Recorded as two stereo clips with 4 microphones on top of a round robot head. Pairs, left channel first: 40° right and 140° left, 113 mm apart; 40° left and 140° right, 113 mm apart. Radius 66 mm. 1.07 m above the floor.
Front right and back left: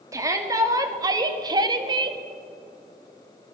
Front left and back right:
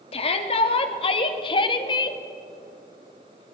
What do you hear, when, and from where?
0.1 s a shout: 75° left, 2.5 m; by 2.2 s 90° left, 1.6 m